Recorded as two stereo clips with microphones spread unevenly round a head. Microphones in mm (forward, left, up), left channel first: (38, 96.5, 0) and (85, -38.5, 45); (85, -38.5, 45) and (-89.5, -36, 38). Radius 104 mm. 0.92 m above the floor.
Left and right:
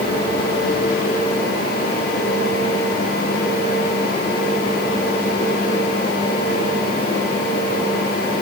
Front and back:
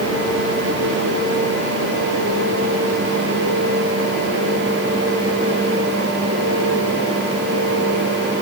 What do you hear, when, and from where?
Only background noise.